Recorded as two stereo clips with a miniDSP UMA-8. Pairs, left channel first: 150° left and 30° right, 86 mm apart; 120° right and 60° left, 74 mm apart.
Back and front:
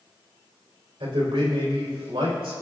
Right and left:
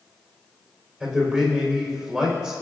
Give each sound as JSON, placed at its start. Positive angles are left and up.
{"t": 1.0, "sound": "a man speaking", "azimuth_deg": -15, "distance_m": 4.0}